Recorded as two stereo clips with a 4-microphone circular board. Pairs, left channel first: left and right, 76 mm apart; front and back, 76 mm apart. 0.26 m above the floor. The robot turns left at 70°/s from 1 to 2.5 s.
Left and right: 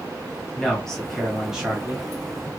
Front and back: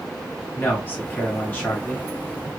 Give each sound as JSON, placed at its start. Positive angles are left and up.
{"t": 0.6, "sound": "a man speaking", "azimuth_deg": 20, "distance_m": 1.2}